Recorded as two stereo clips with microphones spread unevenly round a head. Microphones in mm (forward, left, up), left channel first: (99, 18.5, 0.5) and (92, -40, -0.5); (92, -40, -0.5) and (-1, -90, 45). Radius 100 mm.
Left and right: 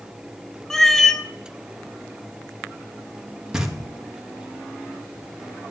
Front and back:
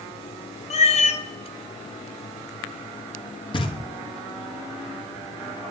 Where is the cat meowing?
Straight ahead, 1.3 m.